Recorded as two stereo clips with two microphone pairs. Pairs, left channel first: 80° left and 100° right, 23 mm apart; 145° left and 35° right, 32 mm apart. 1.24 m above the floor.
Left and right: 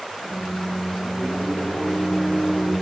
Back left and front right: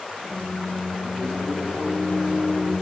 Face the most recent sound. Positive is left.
turn(degrees=120)